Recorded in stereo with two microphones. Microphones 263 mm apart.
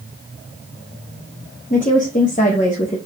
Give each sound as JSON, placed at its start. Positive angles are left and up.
{"t": 1.7, "sound": "a woman speaking", "side_deg": 30, "distance_m": 1.1}